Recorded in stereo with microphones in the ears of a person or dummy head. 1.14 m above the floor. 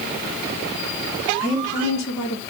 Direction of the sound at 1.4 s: 70° left (ahead or behind).